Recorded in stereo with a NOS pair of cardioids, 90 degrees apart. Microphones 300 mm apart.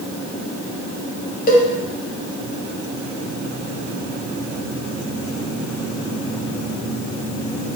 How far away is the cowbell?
About 0.6 m.